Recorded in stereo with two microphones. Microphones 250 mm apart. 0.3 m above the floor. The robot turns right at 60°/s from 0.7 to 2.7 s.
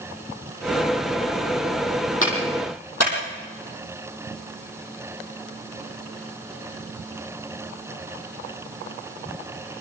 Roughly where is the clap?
Left.